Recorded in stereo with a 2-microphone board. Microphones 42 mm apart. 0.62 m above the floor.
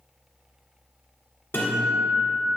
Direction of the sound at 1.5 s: 65° left (ahead or behind).